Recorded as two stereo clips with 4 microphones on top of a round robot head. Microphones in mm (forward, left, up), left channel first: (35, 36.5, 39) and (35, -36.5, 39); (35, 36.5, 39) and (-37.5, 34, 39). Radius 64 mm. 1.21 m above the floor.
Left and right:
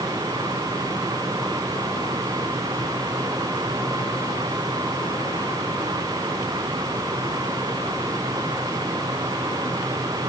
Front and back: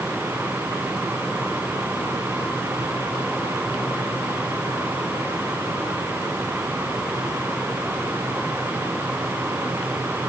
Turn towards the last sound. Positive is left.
No sound to turn to.